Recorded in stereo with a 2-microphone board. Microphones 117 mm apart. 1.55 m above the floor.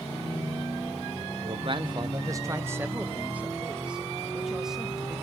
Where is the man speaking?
55° right (ahead or behind), 0.7 m; by 5.2 s centre (ahead or behind), 2.5 m.